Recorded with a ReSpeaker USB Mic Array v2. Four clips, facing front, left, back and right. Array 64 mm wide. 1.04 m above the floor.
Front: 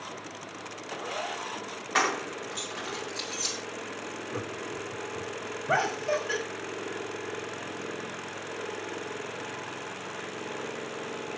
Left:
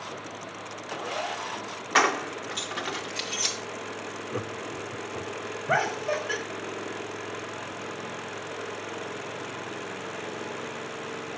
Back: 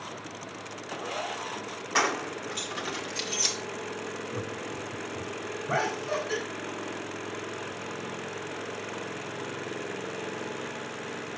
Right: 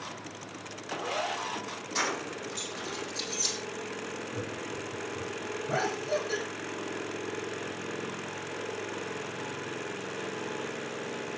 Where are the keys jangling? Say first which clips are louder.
Left 9 dB, even; 85° left, 2 m; by 3.5 s 115° left, 2 m.